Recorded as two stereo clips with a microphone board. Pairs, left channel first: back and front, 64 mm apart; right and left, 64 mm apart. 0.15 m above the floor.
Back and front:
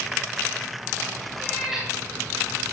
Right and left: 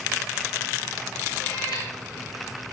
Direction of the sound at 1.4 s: 90° right.